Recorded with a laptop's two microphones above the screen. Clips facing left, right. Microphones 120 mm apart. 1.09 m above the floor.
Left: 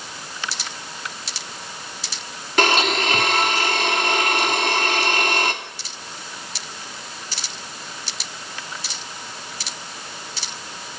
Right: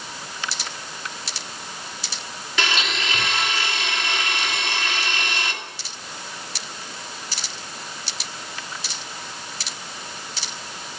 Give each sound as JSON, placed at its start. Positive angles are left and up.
{"t": 2.6, "sound": "a blender", "side_deg": 50, "distance_m": 2.5}